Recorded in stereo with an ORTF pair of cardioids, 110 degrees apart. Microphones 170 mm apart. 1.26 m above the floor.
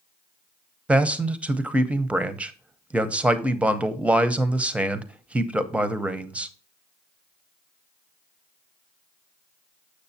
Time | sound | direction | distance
0.9 | a man speaking | 5° right | 0.8 m